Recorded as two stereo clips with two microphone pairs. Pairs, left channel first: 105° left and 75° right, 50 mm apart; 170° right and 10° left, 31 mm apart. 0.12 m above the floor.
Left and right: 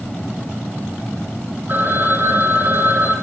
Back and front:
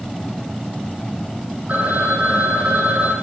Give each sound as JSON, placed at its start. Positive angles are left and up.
{"t": 1.7, "sound": "a phone ringing", "azimuth_deg": -25, "distance_m": 3.5}